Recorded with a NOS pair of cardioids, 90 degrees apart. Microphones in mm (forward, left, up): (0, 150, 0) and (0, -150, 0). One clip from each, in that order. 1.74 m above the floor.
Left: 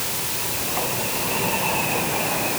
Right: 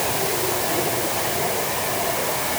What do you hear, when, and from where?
Only background noise.